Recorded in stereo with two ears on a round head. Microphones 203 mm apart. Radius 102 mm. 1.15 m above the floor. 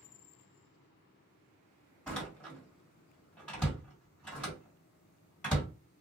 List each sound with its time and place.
2.1 s a door slam: 5° left (ahead or behind), 1.7 m